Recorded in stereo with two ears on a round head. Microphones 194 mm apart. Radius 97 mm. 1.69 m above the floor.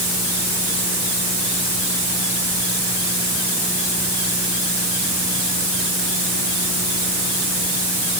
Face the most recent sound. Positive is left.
No sound to turn to.